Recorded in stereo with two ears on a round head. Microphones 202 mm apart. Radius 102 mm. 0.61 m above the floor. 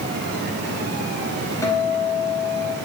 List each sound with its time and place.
1.6 s a guitar: 15° left (ahead or behind), 3.5 m